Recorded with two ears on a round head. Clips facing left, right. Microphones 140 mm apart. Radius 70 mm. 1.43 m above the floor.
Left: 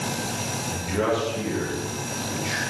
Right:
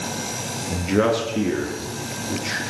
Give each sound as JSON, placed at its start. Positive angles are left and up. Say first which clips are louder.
{"t": 0.7, "sound": "a man speaking", "louder": "right 5 dB", "side_deg": -65, "distance_m": 2.5}